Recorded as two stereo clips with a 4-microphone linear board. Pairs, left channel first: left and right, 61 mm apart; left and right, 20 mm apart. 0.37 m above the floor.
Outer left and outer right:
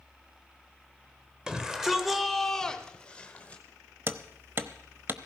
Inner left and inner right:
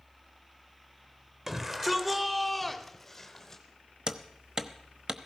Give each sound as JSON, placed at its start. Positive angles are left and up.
{"t": 1.5, "sound": "a shout", "side_deg": -10, "distance_m": 1.3}
{"t": 4.1, "sound": "hammering", "side_deg": -40, "distance_m": 0.8}